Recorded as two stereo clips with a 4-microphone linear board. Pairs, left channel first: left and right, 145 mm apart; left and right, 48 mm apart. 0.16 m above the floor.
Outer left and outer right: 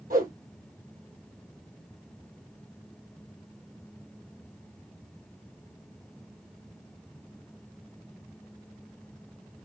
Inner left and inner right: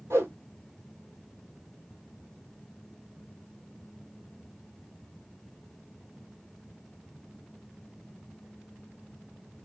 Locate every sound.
0.1 s a whoosh: 70° right (ahead or behind), 1.2 m